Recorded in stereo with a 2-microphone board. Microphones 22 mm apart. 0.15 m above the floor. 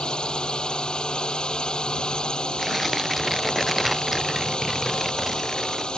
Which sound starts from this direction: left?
A drone, at 0.0 s.